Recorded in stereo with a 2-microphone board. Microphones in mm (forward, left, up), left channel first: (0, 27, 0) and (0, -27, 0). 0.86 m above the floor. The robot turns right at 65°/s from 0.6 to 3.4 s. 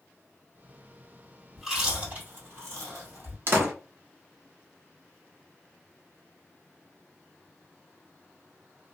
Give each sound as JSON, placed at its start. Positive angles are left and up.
{"t": 1.6, "sound": "chewing", "side_deg": 0, "distance_m": 2.0}
{"t": 3.5, "sound": "a door slam", "side_deg": -50, "distance_m": 0.8}